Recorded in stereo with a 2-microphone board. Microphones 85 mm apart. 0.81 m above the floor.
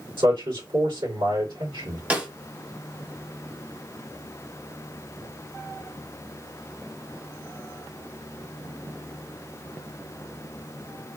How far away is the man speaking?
About 2 m.